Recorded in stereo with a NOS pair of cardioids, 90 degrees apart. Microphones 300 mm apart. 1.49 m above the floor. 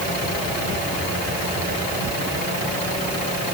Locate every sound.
Only background noise.